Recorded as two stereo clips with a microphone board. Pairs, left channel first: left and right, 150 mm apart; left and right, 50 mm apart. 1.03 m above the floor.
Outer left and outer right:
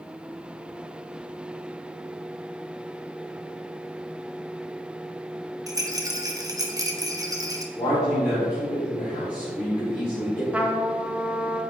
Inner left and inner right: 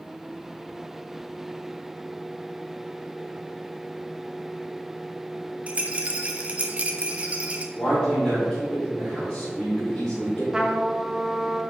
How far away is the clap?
No clap in this recording.